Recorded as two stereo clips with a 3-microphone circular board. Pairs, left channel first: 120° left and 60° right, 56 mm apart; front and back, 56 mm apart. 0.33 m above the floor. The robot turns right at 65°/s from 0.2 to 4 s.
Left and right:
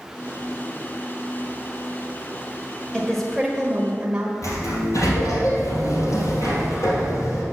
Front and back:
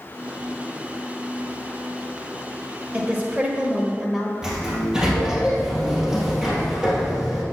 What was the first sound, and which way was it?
A woman speaking, 170° right.